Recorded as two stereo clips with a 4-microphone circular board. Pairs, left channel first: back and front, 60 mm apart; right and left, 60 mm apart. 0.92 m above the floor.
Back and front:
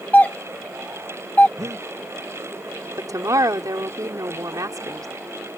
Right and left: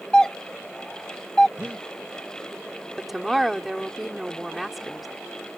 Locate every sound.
0.1 s a doorbell: 155° right
1.6 s breathing: 20° left
3.0 s a woman speaking: straight ahead